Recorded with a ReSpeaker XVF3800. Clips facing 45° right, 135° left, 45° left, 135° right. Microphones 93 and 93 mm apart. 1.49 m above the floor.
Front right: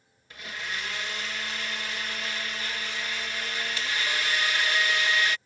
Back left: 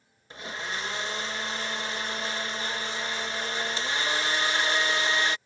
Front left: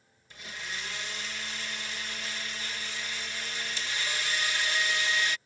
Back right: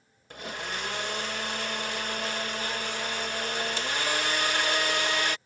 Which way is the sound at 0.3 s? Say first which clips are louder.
Back left 2 dB, back right 6 dB; 165° right.